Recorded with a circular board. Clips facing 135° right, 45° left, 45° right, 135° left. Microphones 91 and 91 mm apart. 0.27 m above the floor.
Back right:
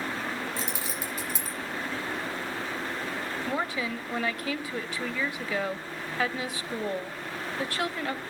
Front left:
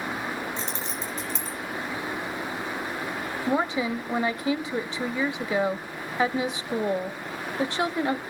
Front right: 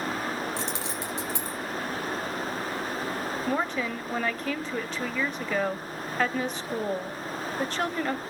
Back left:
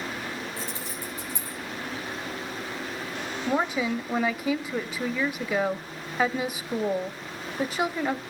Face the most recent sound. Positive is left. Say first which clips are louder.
# front left 7 dB, back left 4 dB
turn(degrees=70)